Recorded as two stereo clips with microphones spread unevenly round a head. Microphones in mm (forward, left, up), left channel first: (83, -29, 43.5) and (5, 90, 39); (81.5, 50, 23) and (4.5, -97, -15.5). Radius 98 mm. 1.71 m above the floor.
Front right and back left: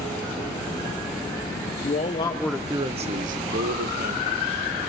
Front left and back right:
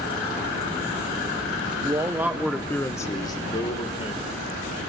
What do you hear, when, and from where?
1.8 s a man speaking: 40° right, 0.8 m; by 4.5 s 120° left, 1.7 m